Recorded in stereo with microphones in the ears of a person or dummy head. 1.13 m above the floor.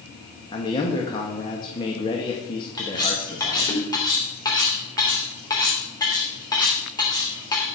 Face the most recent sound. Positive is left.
turn(degrees=20)  # may be behind; listen again after turning